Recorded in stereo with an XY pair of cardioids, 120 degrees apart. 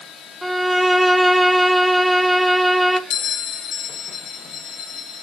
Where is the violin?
10° right, 0.6 m.